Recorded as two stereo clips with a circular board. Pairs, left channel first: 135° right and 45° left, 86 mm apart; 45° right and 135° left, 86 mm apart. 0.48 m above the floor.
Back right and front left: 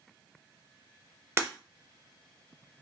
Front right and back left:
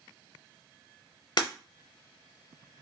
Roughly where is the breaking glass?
Ahead.